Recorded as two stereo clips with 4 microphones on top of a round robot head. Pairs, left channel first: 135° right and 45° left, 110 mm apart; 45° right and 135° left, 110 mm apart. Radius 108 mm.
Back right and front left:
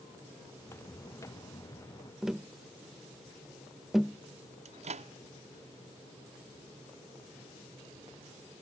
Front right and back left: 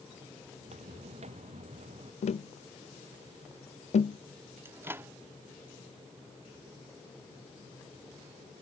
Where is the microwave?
65° left.